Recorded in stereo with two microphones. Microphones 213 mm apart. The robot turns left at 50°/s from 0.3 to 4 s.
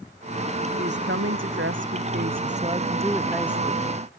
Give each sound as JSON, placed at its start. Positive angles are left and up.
{"t": 0.8, "sound": "a woman speaking", "azimuth_deg": -55}